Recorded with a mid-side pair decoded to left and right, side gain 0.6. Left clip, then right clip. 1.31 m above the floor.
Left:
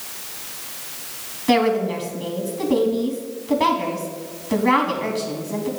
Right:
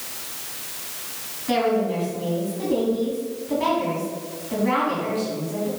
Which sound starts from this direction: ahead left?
A woman speaking, at 1.5 s.